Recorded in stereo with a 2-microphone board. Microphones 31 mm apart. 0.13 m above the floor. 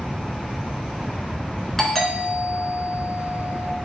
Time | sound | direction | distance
1.8 | a doorbell | 10° left (ahead or behind) | 2.5 m